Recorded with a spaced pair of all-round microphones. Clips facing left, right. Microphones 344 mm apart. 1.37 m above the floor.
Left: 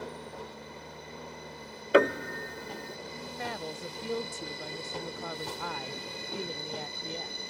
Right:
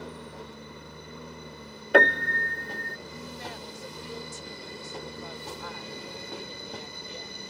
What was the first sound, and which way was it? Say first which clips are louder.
A lawn mower: even; 15° right (ahead or behind).